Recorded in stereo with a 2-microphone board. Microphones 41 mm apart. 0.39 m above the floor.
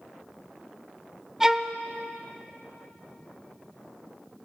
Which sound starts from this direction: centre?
A violin, at 1.4 s.